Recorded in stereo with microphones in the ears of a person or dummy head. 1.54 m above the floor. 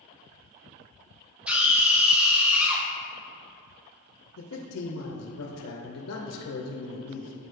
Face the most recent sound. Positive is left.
turn(degrees=75)  # may be behind; listen again after turning